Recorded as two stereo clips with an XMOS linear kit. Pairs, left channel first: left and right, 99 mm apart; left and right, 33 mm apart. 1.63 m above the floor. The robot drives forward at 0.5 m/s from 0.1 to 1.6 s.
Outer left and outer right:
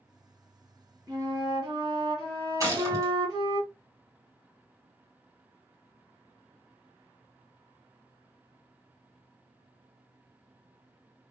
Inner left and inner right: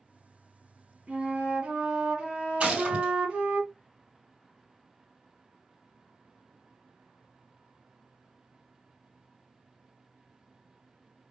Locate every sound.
1.1 s a flute: 35° right (ahead or behind), 1.6 m; by 3.6 s 45° right (ahead or behind), 1.4 m
2.6 s a gunshot: 35° right (ahead or behind), 2.5 m